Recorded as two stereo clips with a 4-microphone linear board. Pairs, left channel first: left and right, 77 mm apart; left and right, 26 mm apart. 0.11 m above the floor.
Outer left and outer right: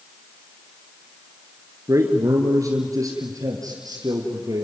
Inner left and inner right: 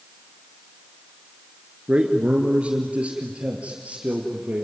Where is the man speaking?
40° right (ahead or behind), 2 m; by 4.6 s 55° right (ahead or behind), 3 m.